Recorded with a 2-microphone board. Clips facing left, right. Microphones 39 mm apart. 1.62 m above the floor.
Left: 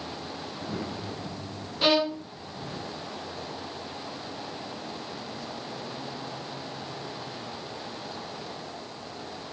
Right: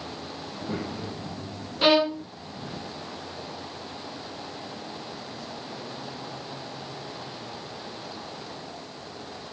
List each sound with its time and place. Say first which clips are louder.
0.5 s a child speaking: right 3 dB; 55° right (ahead or behind), 6.5 m
1.8 s a violin: right 3 dB; 15° right (ahead or behind), 0.5 m